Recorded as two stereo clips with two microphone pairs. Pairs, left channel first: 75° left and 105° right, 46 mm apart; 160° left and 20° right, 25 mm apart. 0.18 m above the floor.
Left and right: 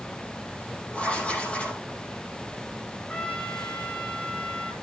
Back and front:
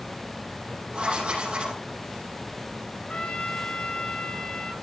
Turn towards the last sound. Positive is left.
turn(degrees=130)